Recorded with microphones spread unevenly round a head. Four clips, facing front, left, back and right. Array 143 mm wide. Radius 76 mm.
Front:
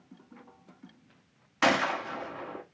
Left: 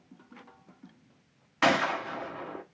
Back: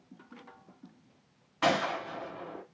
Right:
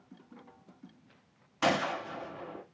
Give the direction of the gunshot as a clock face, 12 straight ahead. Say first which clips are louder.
Left 4 dB, front 2 dB; 11 o'clock.